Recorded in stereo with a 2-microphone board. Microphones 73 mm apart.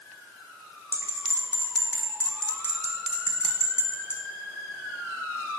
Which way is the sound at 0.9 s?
35° left (ahead or behind).